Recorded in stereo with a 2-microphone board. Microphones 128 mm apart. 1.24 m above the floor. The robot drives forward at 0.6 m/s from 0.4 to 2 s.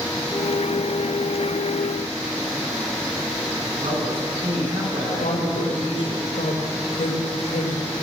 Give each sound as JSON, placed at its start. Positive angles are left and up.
{"t": 3.8, "sound": "a man speaking", "side_deg": -90, "distance_m": 9.0}
{"t": 5.2, "sound": "a woman speaking", "side_deg": 85, "distance_m": 5.0}